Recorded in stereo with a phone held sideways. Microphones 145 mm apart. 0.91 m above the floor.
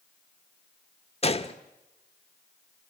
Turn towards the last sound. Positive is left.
turn(degrees=45)  # may be behind; listen again after turning